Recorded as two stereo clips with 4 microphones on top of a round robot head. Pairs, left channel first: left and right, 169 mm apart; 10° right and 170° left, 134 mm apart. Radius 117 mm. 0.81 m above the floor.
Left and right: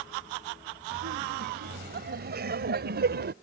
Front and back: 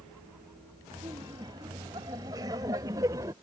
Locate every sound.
0.9 s laughter: 120° right; by 3.4 s 115° right